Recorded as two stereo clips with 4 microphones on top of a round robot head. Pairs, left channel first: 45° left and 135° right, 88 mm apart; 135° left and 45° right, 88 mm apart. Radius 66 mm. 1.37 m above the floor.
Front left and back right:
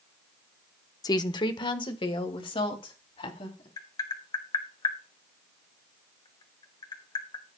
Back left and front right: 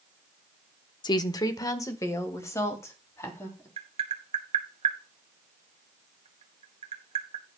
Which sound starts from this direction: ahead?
Tapping, at 3.8 s.